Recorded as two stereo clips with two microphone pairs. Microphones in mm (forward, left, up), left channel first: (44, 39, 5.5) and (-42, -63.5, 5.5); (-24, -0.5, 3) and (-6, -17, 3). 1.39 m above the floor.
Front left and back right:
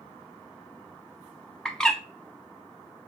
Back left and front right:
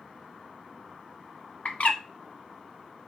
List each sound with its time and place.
1.6 s a bird: 135° left, 0.6 m